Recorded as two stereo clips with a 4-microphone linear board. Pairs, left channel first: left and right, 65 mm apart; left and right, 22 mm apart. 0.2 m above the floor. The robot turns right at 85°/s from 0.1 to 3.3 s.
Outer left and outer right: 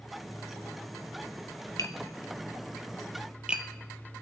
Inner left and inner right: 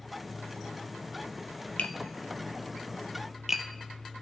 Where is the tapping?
70° left (ahead or behind), 0.7 m; by 3.7 s 15° right (ahead or behind), 0.7 m.